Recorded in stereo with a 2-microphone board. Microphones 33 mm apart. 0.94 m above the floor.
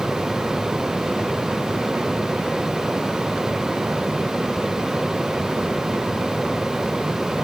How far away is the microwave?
No microwave in this recording.